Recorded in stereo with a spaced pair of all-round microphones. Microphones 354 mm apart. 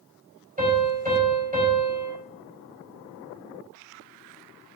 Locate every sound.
0.6 s a piano: 25° right (ahead or behind), 3.5 m